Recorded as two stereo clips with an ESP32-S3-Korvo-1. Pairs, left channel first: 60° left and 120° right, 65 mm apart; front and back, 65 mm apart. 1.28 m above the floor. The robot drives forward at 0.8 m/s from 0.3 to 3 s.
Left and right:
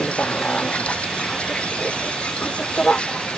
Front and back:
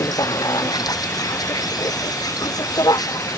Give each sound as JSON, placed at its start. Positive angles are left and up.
{"t": 0.0, "sound": "a vehicle", "azimuth_deg": -10}